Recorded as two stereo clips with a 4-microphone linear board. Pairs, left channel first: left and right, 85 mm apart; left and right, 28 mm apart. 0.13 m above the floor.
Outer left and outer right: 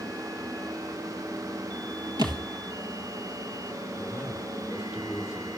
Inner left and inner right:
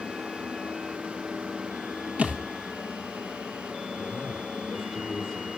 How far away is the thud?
About 1.2 m.